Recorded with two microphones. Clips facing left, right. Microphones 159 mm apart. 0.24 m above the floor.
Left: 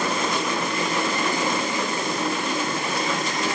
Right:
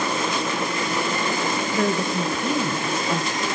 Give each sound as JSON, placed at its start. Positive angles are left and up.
{"t": 1.7, "sound": "a woman speaking", "side_deg": -60, "distance_m": 2.5}